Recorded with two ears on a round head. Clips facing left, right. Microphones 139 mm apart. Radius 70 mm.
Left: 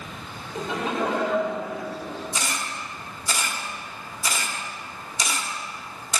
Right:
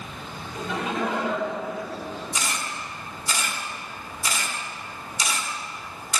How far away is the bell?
No bell in this recording.